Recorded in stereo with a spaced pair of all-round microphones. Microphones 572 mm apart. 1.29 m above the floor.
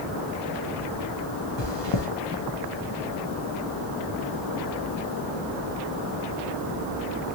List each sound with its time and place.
1.6 s chewing: 50° left (ahead or behind), 0.7 m